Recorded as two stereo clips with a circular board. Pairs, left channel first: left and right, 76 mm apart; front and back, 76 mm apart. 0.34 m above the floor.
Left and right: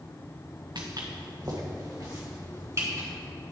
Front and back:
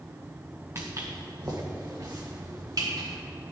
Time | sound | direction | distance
0.8 | footsteps | 125° right | 1.4 m